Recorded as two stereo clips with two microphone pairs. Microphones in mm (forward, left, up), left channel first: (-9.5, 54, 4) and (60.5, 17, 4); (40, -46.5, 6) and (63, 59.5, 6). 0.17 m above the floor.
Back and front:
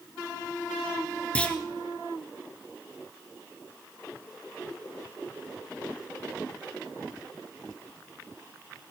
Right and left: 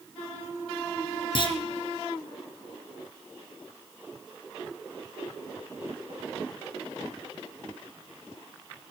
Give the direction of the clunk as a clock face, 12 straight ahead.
5 o'clock.